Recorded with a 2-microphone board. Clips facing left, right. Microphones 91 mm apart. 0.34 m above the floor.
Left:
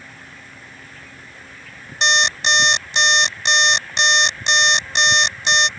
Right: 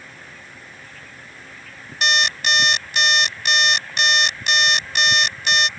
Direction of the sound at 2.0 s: 25° left (ahead or behind).